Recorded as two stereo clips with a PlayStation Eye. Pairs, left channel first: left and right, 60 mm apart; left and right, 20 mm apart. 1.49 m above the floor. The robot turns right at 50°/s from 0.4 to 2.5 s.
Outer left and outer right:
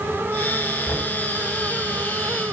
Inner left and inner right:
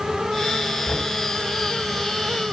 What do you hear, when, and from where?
0.8 s knocking: 35° left (ahead or behind), 6.5 m; by 1.1 s 50° left (ahead or behind), 6.5 m